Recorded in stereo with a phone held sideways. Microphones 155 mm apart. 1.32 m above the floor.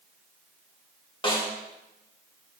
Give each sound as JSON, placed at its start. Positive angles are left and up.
{"t": 1.2, "sound": "a snare drum", "side_deg": 35, "distance_m": 1.2}